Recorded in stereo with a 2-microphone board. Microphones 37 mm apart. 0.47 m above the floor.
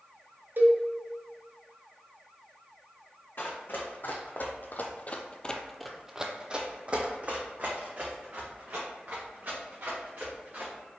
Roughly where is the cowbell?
Right.